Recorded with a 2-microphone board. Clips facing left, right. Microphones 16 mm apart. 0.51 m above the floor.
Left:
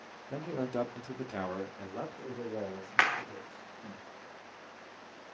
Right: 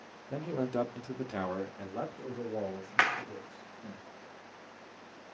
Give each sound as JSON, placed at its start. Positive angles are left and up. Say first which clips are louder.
{"t": 0.3, "sound": "a man speaking", "louder": "right 2 dB", "side_deg": -5, "distance_m": 0.8}
{"t": 3.0, "sound": "a clap", "louder": "even", "side_deg": 10, "distance_m": 0.9}